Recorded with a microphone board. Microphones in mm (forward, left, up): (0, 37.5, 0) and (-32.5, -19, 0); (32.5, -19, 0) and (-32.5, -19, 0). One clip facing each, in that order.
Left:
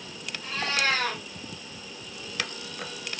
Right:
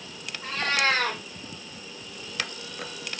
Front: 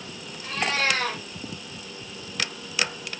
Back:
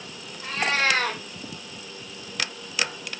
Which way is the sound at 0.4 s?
160° right.